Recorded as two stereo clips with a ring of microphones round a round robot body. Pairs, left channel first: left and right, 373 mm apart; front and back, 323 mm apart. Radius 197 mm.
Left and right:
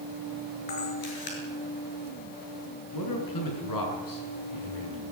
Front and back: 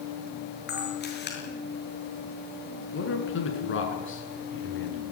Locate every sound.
0.7 s a camera shutter: 60° left, 7.5 m
2.9 s a man speaking: 50° left, 7.5 m